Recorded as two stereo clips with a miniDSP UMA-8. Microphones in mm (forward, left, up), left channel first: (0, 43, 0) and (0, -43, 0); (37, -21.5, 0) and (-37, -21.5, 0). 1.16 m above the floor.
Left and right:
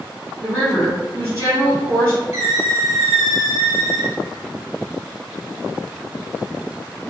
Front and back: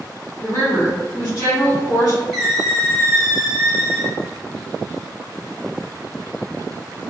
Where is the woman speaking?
40° right, 1.6 m.